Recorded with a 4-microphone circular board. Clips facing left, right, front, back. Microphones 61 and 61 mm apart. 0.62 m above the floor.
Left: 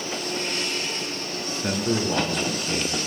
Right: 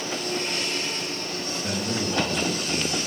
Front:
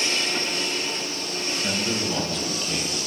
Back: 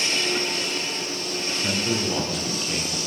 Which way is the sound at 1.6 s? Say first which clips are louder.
Left 5 dB, back 2 dB; 100° left.